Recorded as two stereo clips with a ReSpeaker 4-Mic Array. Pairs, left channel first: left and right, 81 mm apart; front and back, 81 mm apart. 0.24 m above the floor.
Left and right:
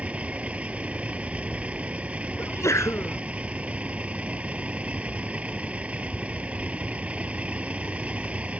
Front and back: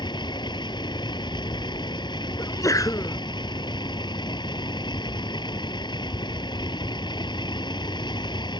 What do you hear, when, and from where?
0.0 s a vehicle: 15° right
2.4 s a sneeze: 40° left